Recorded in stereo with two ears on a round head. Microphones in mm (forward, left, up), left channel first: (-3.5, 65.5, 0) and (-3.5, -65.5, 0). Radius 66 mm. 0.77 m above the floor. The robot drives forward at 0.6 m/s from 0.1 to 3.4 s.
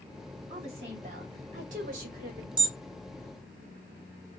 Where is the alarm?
30° right (ahead or behind), 1.1 m; by 2.7 s 35° right (ahead or behind), 1.0 m.